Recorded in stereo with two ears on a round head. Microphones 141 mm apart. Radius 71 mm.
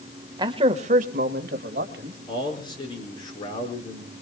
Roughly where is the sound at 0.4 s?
Right.